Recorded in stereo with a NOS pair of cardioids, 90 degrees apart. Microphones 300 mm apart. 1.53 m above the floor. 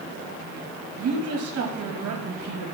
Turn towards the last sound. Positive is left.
turn(degrees=-65)